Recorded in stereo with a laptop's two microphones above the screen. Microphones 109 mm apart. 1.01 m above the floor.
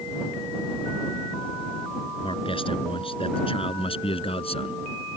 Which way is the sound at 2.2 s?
55° left (ahead or behind).